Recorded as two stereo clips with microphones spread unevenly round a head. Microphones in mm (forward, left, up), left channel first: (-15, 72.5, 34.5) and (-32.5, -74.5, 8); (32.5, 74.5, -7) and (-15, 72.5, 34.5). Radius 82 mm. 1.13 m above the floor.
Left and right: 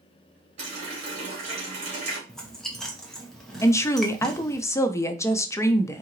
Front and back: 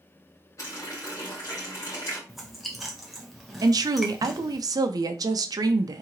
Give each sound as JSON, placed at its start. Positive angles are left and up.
{"t": 0.6, "sound": "a running tap", "azimuth_deg": -45, "distance_m": 2.0}
{"t": 2.3, "sound": "chewing", "azimuth_deg": -15, "distance_m": 0.8}
{"t": 3.6, "sound": "a woman speaking", "azimuth_deg": 155, "distance_m": 0.5}